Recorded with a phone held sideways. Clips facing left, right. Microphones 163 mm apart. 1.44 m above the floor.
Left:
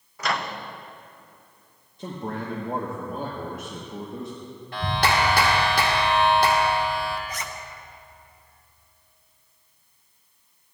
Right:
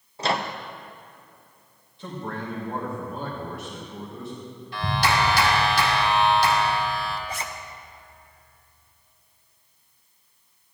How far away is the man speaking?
About 1.3 m.